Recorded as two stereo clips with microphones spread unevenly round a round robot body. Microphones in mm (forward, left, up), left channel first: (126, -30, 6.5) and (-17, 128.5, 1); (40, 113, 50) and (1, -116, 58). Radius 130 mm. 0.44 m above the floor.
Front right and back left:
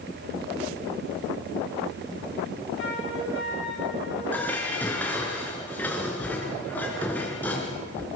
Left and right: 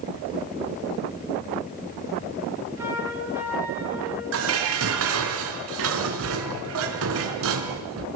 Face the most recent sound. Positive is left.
turn(degrees=-130)